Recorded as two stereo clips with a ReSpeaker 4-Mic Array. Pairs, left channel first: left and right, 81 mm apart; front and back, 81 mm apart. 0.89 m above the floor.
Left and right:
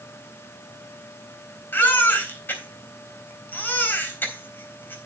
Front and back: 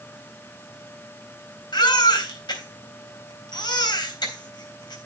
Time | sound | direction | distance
1.7 | a baby crying | 25° left | 4 m